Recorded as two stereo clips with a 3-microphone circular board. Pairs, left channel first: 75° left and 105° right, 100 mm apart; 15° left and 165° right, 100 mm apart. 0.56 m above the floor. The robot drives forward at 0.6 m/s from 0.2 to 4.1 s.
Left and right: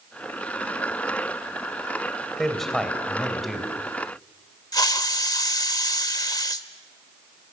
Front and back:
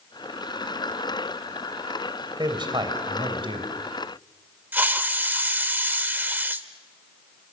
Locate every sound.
2.4 s a man speaking: 160° left, 2.5 m; by 3.7 s 165° left, 3.5 m
4.7 s a hiss: 125° left, 0.7 m